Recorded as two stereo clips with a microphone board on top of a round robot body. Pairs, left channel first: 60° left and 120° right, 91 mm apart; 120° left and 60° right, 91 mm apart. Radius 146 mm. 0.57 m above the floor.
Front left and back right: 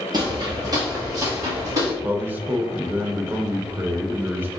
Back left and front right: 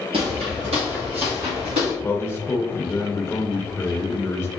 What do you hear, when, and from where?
0.1 s footsteps: 80° right, 0.6 m; by 1.9 s 70° right, 3 m
2.0 s a man speaking: 175° left, 0.8 m